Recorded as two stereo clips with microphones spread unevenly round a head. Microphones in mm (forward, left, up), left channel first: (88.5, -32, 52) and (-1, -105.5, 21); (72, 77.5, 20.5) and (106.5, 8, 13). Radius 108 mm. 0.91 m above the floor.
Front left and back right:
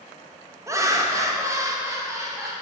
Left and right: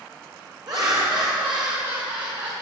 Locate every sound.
0.7 s laughter: 95° right, 1.2 m; by 2.5 s 85° right, 2.5 m